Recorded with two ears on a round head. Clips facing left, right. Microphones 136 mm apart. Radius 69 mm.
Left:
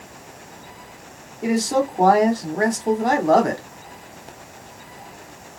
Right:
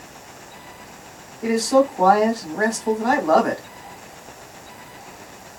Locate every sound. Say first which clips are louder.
1.4 s a man speaking: right 3 dB; 20° left (ahead or behind), 0.9 m